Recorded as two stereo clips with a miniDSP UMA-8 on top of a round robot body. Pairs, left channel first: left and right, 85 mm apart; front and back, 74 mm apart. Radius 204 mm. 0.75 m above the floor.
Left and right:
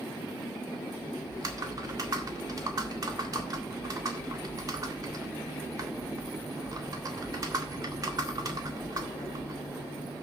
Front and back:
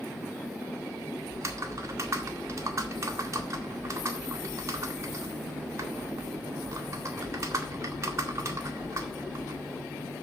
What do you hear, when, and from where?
1.3 s typing on a keyboard: 135° right, 1.9 m